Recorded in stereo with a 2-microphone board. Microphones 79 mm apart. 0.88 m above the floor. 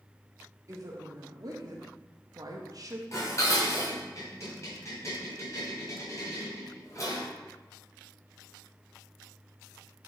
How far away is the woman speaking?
About 2 m.